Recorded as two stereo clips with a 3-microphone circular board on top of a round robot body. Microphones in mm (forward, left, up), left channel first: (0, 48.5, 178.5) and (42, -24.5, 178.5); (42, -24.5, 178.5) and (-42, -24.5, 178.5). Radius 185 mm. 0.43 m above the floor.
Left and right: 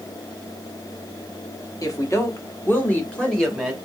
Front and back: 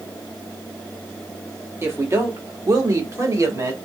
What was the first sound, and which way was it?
A woman speaking, 140° left.